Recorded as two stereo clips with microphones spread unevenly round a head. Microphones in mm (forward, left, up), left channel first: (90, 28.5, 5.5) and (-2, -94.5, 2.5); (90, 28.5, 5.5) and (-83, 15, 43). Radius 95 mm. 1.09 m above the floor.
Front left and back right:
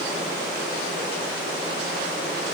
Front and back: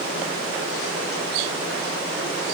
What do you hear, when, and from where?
Only background noise.